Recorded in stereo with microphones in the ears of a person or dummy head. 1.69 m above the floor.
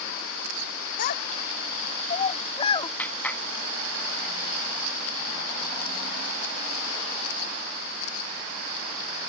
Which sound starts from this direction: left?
A child speaking, at 1.0 s.